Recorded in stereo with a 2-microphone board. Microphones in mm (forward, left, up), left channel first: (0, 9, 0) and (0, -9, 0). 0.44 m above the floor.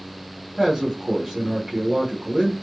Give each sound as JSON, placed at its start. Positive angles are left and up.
{"t": 0.6, "sound": "a man speaking", "side_deg": -25, "distance_m": 1.5}